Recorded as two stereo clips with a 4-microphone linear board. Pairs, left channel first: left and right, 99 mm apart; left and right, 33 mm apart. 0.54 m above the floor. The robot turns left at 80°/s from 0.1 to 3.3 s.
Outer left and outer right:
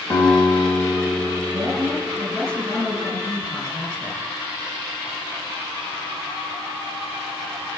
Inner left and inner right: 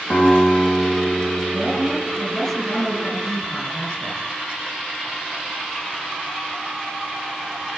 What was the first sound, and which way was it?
A guitar, 155° left.